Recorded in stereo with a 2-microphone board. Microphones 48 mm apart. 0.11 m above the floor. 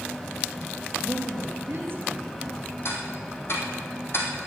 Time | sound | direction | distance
1.0 | a woman speaking | 45° right (ahead or behind) | 2 m
2.9 | ticking | 55° left (ahead or behind) | 2.5 m